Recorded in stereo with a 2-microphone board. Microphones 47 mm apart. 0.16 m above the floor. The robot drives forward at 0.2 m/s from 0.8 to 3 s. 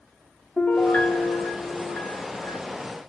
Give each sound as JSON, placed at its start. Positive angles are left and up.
{"t": 0.6, "sound": "a piano", "side_deg": 30, "distance_m": 0.8}